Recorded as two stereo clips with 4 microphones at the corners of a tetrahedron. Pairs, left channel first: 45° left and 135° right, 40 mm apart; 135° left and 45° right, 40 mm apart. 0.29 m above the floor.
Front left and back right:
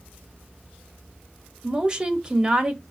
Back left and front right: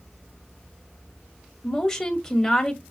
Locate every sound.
1.6 s a woman speaking: 165° right, 1.2 m